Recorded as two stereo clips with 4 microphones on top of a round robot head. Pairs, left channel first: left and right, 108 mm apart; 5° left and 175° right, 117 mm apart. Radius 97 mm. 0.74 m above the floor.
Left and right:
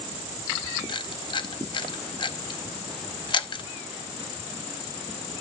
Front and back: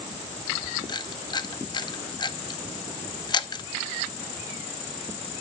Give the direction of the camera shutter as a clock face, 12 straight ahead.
10 o'clock.